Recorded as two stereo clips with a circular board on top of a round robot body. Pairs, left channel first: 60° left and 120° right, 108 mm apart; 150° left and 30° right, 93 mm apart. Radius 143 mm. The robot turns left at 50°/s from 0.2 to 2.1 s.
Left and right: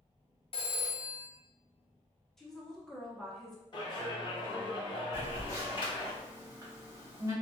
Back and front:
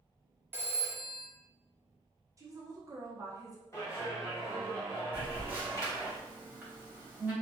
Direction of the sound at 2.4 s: 20° right.